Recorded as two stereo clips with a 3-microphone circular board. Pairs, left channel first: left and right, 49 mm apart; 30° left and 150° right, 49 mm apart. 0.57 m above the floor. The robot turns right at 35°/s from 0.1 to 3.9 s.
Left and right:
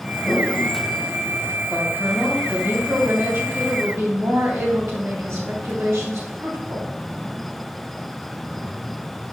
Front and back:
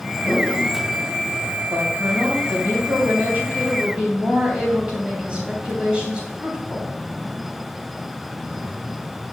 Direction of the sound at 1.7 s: 160° right.